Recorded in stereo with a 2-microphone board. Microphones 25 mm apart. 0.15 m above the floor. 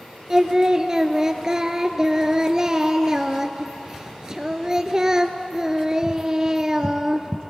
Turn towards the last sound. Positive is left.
turn(degrees=-25)  # may be behind; listen again after turning